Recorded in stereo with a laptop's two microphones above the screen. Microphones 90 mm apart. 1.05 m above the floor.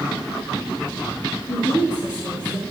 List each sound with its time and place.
1.5 s a woman speaking: 75° left (ahead or behind), 6 m; by 2.6 s 65° left (ahead or behind), 5 m